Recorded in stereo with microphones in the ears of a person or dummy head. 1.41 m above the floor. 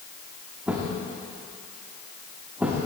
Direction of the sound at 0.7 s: 10° right (ahead or behind).